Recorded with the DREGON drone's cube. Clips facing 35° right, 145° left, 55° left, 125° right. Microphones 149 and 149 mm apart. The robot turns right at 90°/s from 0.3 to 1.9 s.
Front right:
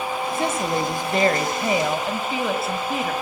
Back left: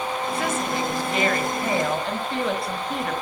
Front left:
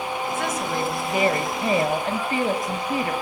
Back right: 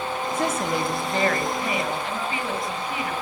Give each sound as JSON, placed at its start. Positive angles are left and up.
{"t": 0.3, "sound": "a woman speaking", "azimuth_deg": -95, "distance_m": 1.2}